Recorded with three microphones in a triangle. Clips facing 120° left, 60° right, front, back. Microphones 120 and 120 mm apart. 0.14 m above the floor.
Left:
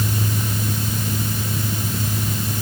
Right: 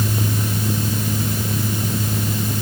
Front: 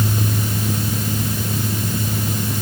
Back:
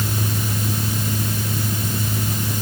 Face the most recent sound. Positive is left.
No sound to turn to.